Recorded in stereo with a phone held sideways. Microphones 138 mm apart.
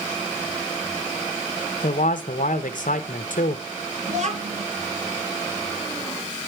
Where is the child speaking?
60° right (ahead or behind), 1.4 m.